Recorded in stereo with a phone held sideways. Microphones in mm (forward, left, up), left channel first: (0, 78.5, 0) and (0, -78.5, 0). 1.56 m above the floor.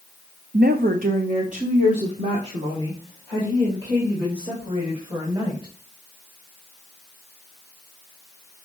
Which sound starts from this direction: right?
A woman speaking, at 0.5 s.